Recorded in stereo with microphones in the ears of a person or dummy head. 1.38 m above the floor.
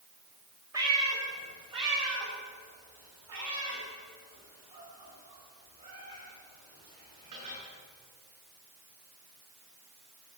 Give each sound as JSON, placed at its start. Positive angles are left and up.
{"t": 0.7, "sound": "a cat meowing", "side_deg": -10, "distance_m": 1.8}